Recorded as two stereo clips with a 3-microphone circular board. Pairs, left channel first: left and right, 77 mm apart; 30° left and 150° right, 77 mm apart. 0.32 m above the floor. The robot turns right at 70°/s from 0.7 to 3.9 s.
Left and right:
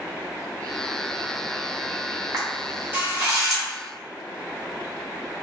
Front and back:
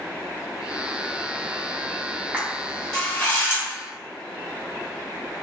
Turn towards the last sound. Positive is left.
turn(degrees=20)